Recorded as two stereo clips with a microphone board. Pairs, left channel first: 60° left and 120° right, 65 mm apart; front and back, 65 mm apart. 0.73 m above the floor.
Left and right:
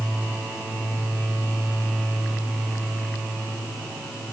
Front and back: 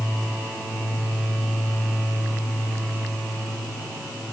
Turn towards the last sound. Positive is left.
No sound to turn to.